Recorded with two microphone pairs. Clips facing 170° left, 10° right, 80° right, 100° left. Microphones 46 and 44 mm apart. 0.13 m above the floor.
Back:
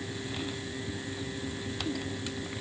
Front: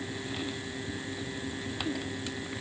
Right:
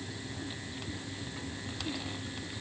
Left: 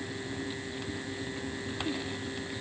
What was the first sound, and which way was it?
Only background noise.